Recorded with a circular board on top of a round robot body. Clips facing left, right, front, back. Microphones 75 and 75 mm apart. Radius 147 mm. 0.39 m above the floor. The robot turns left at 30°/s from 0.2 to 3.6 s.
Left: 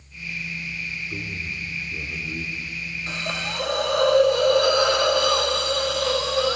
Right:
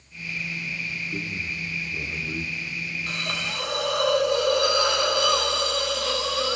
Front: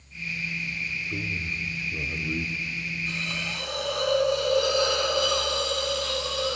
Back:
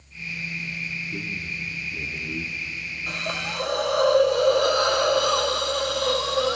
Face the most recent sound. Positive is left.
turn(degrees=140)